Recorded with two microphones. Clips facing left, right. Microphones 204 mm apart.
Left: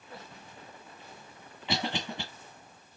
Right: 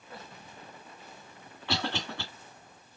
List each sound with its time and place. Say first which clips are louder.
1.7 s a cough: even; 20° left (ahead or behind), 2.0 m